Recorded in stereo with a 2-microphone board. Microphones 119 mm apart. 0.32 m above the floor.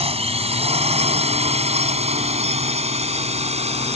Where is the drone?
60° right (ahead or behind); by 4.0 s 65° right (ahead or behind).